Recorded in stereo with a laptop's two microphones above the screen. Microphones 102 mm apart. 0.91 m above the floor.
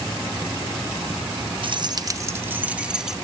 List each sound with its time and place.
1.6 s keys jangling: 55° right (ahead or behind); by 3.1 s 5° right (ahead or behind)